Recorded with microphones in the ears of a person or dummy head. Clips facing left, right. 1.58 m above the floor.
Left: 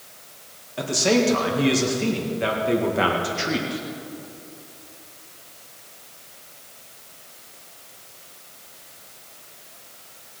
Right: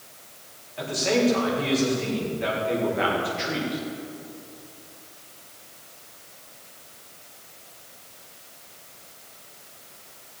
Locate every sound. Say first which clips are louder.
0.8 s a man speaking: left 3 dB; 55° left (ahead or behind), 2 m